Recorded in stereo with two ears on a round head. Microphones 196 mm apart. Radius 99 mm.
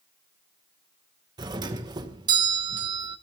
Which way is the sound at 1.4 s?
20° right (ahead or behind).